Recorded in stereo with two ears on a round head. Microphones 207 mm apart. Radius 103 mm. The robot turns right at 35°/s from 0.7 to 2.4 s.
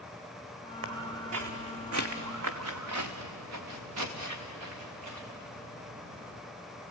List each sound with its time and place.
0.8 s footsteps: 60° right (ahead or behind), 1.8 m; by 6.4 s 70° right (ahead or behind), 5.5 m